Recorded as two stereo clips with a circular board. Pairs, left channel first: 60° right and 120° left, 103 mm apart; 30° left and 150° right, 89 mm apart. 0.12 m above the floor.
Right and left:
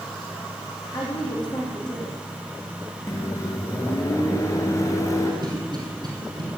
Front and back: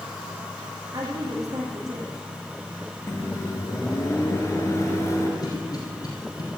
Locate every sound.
0.9 s a woman speaking: 105° right, 5.5 m
3.1 s a microwave: 15° right, 1.9 m
5.4 s a cough: 75° left, 5.5 m